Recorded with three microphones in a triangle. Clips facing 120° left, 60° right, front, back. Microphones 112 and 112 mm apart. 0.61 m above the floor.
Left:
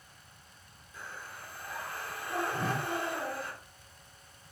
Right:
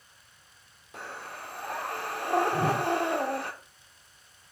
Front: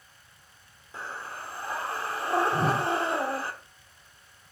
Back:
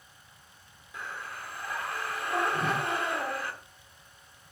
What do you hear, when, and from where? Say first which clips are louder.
0.9 s breathing: right 5 dB, front 2 dB; 55° right, 0.9 m
2.5 s a whoosh: right 7 dB, front 4 dB; 5° left, 0.8 m